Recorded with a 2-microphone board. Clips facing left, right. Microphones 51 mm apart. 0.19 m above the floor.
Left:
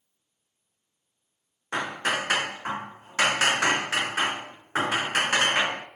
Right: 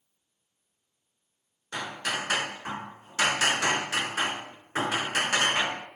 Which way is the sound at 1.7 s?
35° left (ahead or behind).